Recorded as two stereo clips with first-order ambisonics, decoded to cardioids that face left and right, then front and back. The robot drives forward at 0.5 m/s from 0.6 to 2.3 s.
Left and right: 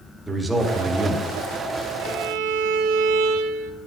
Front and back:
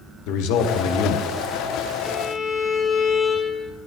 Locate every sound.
0.3 s a man speaking: 5° right, 1.2 m; by 1.4 s 10° right, 0.8 m
2.0 s a violin: 75° right, 1.0 m; by 3.7 s 80° right, 1.0 m